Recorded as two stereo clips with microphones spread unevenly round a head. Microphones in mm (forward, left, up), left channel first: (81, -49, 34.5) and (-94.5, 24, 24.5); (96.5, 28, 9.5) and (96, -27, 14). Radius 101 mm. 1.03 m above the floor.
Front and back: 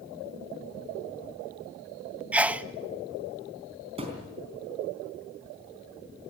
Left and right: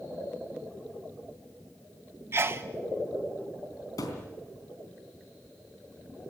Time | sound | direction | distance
2.3 | a sneeze | 125° right | 0.8 m
4.0 | a thud | 95° left | 3.5 m